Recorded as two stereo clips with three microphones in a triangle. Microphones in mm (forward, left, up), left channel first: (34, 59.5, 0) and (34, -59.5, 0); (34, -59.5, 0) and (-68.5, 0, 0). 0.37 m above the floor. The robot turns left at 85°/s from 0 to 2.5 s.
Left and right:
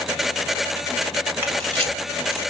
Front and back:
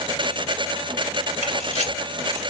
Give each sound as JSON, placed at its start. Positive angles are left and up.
{"t": 1.4, "sound": "a camera shutter", "azimuth_deg": -20, "distance_m": 1.0}